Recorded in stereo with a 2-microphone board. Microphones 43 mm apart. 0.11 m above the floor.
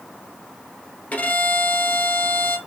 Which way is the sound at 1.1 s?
40° left (ahead or behind).